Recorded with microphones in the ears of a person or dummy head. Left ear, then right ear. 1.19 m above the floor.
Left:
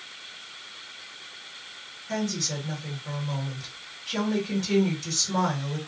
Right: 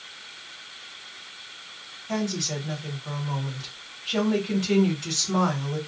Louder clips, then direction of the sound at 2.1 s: Right 1 dB; 30° right (ahead or behind).